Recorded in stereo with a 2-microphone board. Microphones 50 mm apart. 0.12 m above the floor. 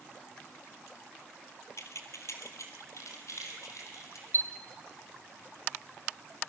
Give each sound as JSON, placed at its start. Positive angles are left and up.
{"t": 1.8, "sound": "keys jangling", "side_deg": 65, "distance_m": 2.0}
{"t": 4.3, "sound": "a chime", "side_deg": 55, "distance_m": 1.3}